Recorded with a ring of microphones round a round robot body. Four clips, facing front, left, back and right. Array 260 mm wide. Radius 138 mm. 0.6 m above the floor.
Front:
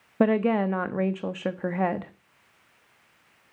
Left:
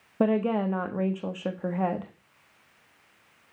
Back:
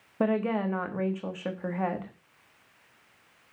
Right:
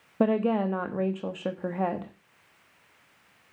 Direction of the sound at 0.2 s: 5° right.